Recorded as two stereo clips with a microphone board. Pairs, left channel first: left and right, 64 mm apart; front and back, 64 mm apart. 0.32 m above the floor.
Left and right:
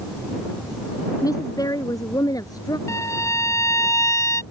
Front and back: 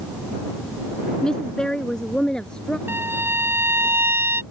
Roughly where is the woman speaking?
Left.